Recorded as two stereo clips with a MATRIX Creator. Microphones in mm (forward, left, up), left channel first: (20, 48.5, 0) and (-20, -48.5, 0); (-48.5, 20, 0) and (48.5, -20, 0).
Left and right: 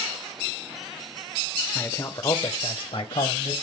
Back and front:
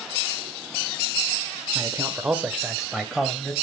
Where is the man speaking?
10° left, 1.0 m; by 3.5 s 75° left, 2 m.